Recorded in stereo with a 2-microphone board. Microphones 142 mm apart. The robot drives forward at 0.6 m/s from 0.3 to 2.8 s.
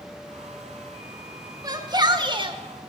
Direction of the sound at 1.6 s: 30° right (ahead or behind).